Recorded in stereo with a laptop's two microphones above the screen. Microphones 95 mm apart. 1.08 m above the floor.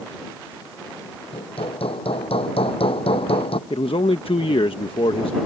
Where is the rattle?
I don't hear a rattle.